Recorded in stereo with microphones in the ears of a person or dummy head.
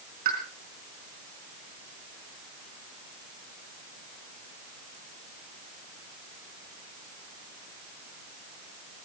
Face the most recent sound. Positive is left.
turn(degrees=-40)  # may be behind; listen again after turning